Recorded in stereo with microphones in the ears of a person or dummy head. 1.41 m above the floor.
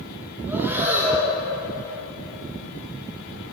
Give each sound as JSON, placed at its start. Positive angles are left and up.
{"t": 0.5, "sound": "breathing", "side_deg": -10, "distance_m": 1.0}